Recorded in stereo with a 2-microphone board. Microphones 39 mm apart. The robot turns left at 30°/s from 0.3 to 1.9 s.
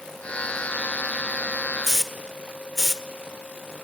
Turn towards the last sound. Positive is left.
turn(degrees=10)  # may be behind; listen again after turning